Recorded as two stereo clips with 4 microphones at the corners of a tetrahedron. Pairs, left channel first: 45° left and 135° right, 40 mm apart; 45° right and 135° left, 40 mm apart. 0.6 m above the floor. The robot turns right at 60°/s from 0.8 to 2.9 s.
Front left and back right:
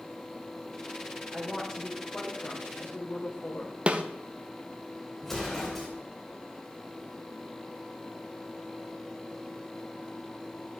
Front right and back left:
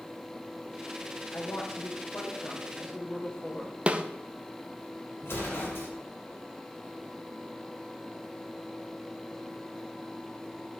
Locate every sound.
1.3 s a woman speaking: 75° right, 2 m; by 3.8 s 20° left, 2 m
3.9 s a snare drum: straight behind, 0.6 m
5.2 s an explosion: 40° right, 2.5 m